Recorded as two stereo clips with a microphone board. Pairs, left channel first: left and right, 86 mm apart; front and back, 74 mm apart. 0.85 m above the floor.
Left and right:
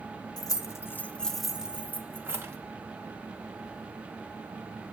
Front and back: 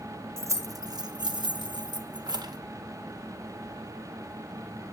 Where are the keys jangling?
130° left, 1.1 m; by 2.6 s 150° right, 1.7 m.